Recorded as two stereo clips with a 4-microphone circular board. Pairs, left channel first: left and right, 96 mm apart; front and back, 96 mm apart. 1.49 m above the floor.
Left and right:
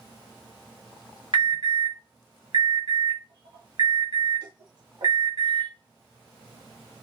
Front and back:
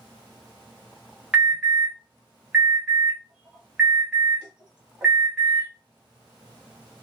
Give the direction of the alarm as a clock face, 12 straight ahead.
3 o'clock.